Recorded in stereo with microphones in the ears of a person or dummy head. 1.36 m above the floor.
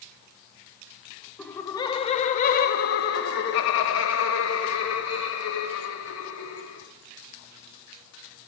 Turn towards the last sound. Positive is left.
turn(degrees=85)